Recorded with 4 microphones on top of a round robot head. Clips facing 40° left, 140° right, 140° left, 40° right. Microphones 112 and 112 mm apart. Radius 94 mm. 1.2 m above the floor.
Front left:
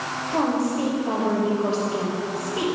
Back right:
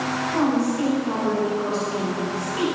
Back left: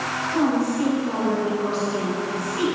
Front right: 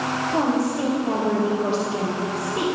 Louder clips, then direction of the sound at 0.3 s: Back right 1 dB, back left 1 dB; 25° right.